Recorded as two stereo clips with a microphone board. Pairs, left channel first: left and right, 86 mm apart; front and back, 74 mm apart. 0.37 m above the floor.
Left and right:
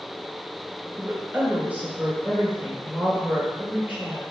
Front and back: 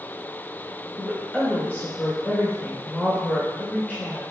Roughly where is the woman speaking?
Ahead right.